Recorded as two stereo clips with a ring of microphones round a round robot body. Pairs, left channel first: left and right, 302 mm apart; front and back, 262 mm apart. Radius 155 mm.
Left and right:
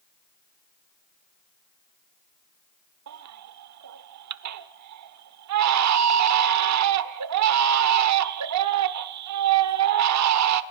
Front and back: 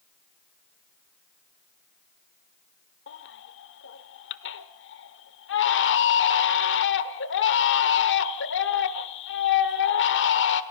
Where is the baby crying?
55° right, 1.3 m.